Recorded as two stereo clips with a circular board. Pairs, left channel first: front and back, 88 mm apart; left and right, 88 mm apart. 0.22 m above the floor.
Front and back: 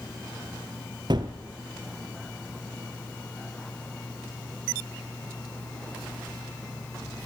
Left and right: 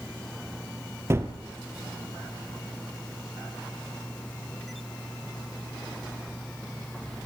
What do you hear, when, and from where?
1.1 s a gunshot: 150° right, 2 m